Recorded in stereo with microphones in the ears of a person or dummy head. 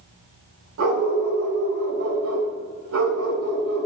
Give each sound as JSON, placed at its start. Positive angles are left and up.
{"t": 0.8, "sound": "a dog barking", "side_deg": -75, "distance_m": 3.5}